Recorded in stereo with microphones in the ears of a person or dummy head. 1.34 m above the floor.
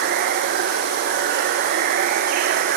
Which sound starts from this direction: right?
Running water, at 0.0 s.